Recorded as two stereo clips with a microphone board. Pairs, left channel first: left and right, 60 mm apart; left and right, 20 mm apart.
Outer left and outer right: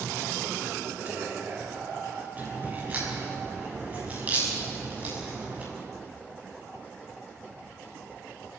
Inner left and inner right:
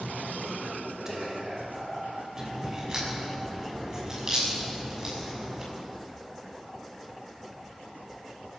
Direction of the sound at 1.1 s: 35° right (ahead or behind).